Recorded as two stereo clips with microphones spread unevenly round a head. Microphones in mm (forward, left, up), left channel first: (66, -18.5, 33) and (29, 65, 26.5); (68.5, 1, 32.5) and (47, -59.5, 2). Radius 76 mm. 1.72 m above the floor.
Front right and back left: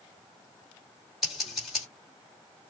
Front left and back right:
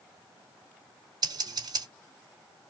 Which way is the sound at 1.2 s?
155° right.